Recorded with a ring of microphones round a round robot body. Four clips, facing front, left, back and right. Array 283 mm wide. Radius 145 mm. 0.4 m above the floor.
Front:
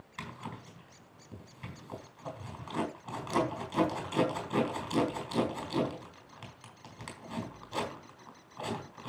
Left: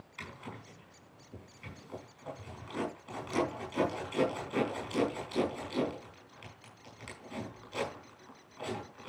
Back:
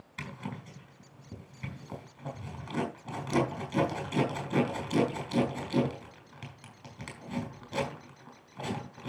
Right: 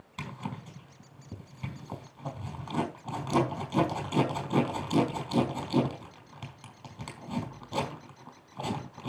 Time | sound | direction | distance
0.2 | a zipper | 120° right | 4.5 m